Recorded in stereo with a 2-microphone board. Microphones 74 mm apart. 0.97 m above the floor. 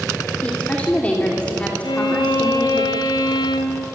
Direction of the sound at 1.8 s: 75° left (ahead or behind).